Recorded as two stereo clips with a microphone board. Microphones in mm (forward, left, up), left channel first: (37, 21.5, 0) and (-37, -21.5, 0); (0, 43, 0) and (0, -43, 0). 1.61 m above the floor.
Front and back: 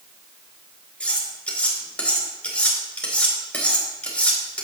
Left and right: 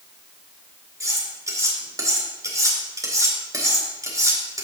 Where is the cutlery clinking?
45° right, 3.5 m.